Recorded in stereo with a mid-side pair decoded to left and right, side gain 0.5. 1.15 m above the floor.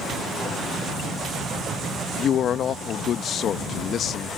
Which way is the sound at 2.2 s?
55° left.